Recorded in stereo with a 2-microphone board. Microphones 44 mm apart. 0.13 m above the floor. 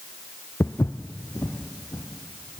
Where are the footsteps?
85° left, 0.7 m; by 2.6 s 80° left, 3 m.